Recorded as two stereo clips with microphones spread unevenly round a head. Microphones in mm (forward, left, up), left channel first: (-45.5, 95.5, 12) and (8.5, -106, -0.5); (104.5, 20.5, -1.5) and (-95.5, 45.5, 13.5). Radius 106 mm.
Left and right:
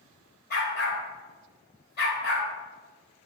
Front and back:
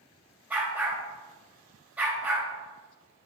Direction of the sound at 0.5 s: 100° left.